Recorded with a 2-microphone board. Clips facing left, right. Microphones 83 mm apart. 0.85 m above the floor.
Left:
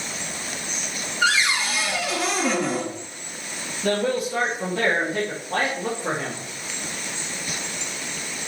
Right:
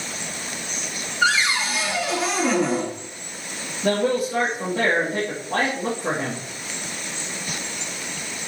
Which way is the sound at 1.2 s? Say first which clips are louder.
Right 1 dB; 5° right (ahead or behind).